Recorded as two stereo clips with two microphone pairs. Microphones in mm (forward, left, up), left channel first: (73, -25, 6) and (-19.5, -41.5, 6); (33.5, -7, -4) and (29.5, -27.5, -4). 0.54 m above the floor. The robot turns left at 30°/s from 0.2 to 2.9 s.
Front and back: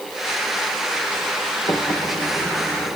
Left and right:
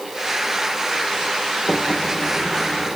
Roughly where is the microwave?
Ahead left.